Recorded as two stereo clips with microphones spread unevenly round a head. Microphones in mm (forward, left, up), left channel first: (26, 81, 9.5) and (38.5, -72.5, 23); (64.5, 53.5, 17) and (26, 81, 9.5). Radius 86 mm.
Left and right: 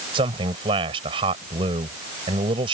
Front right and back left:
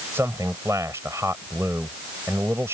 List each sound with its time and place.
0.1 s a man speaking: 150° right